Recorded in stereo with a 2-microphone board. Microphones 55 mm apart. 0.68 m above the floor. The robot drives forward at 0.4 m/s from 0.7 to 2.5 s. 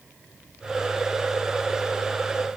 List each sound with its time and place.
Only background noise.